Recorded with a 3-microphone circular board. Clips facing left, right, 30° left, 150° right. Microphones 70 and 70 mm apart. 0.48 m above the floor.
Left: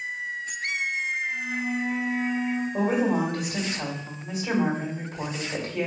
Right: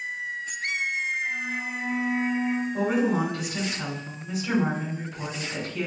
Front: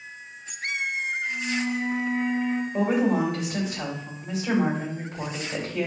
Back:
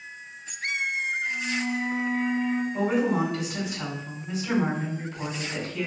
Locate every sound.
1.2 s a flute: 75° right, 1.5 m
2.7 s a woman speaking: 65° left, 2 m